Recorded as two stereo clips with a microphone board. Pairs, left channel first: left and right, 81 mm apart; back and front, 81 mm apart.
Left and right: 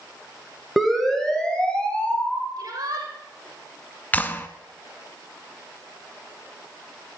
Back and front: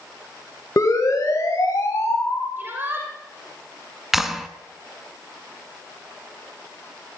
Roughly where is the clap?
Left.